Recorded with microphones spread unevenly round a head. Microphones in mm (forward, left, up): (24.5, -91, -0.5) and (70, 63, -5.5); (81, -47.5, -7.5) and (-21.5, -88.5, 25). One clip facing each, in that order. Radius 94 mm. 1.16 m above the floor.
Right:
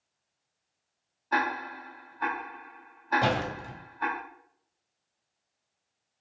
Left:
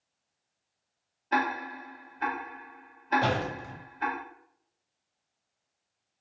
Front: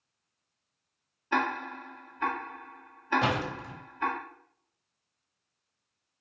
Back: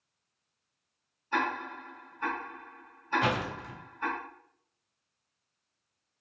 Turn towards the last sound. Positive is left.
turn(degrees=-35)